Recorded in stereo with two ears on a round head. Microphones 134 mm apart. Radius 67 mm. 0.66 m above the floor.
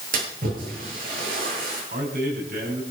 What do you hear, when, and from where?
0.1 s a splash: 65° right (ahead or behind), 9 m
1.9 s a man speaking: 65° right (ahead or behind), 6 m